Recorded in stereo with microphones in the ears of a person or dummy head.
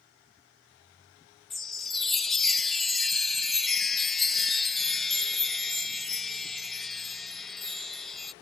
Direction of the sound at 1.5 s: Centre (ahead or behind).